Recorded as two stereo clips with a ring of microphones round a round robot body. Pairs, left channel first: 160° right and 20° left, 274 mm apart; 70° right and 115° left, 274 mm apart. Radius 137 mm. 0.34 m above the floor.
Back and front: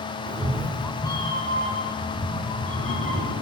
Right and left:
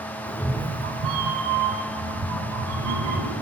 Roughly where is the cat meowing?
Ahead.